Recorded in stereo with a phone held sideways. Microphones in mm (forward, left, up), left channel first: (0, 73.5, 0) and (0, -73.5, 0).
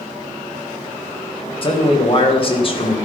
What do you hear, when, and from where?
1.6 s a man speaking: 40° left (ahead or behind), 1.7 m